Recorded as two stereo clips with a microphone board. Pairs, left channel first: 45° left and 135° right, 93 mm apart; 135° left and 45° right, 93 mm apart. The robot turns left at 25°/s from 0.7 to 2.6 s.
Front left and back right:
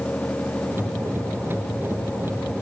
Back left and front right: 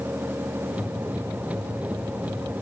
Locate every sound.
Only background noise.